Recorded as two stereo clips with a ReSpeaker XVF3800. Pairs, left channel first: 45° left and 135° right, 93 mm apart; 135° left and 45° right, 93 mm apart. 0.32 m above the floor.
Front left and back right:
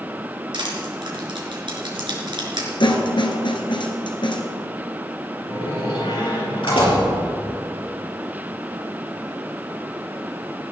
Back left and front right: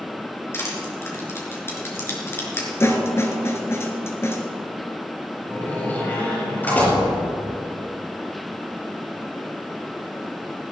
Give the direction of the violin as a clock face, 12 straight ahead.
No violin in this recording.